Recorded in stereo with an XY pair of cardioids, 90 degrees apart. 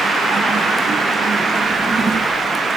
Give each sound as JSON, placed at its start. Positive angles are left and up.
{"t": 1.6, "sound": "a drawer", "azimuth_deg": -40, "distance_m": 8.0}